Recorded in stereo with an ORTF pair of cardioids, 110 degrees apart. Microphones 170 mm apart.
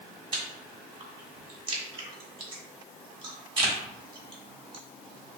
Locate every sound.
0.3 s chewing: 30° right, 1.2 m